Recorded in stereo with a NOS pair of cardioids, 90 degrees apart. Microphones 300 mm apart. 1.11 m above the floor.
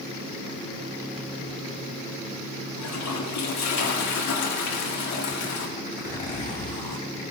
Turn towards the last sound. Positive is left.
turn(degrees=25)